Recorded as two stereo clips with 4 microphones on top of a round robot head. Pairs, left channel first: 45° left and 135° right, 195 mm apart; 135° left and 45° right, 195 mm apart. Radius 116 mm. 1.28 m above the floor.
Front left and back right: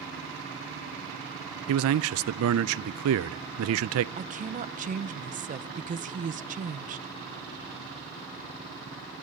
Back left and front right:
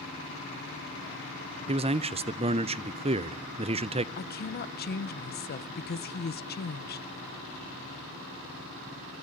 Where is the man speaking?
110° right, 0.6 m.